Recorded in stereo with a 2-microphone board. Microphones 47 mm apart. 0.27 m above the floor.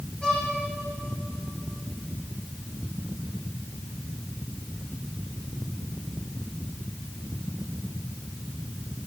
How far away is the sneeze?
No sneeze in this recording.